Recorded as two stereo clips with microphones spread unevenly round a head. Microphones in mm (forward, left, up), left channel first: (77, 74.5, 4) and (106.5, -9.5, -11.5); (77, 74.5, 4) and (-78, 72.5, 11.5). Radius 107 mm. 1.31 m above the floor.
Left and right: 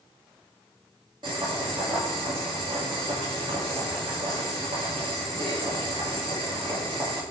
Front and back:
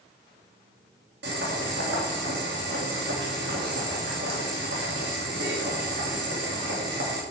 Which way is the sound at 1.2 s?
140° right.